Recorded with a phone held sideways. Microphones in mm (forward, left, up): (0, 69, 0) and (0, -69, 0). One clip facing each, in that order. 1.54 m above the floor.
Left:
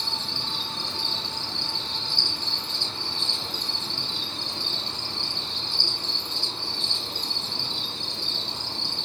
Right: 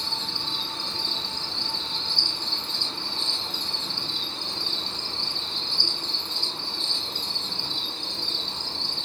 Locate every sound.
0.0 s an insect: 10° left (ahead or behind), 1.2 m